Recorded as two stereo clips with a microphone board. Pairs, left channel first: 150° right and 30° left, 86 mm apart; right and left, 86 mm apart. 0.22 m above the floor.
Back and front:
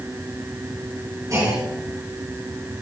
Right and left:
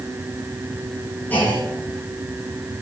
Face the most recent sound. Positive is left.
turn(degrees=-20)